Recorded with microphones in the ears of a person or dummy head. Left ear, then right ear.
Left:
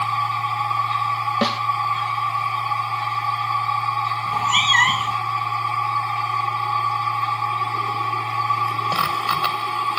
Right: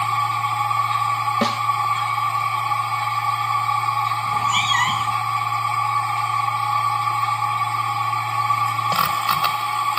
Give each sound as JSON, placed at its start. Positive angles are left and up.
{"t": 0.0, "sound": "a machine running", "side_deg": -10}
{"t": 1.4, "sound": "a snare drum", "side_deg": 5}
{"t": 4.3, "sound": "a cat meowing", "side_deg": 20}